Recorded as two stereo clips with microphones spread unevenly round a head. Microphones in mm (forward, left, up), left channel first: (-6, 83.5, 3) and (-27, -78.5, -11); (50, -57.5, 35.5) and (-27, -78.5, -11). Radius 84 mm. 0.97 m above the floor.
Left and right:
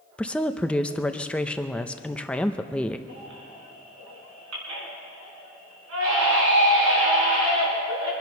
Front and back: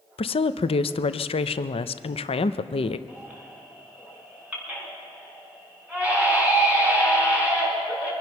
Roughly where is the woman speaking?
Ahead.